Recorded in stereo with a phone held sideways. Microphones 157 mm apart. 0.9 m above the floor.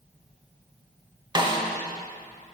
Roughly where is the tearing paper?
I don't hear tearing paper.